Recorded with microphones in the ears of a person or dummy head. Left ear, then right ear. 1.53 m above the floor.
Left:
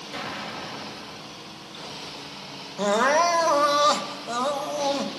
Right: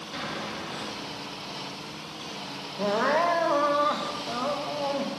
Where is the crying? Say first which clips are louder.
Left 4 dB; 75° left (ahead or behind), 1.7 m.